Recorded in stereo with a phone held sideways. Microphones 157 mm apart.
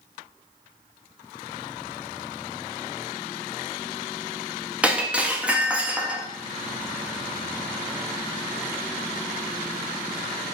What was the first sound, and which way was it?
Breaking glass, 10° right (ahead or behind).